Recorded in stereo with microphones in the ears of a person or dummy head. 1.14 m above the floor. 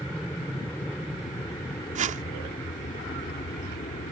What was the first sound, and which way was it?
An aircraft, 10° left (ahead or behind).